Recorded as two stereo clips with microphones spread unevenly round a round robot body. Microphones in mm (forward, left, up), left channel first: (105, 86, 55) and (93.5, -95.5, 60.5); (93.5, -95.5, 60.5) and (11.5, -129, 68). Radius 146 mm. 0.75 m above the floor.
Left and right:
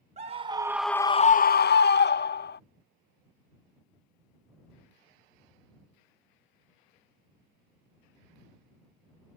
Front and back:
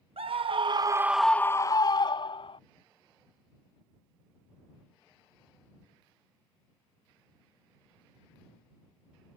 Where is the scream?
150° right; by 2.6 s 55° left.